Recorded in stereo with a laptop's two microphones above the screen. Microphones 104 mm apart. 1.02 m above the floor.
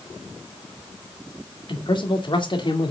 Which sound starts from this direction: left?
A man speaking, at 1.7 s.